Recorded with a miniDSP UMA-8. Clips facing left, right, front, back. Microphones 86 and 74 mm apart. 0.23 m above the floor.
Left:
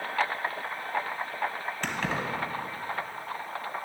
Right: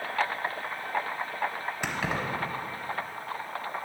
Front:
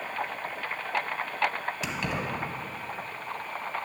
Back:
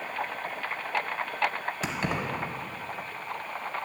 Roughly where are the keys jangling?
Behind.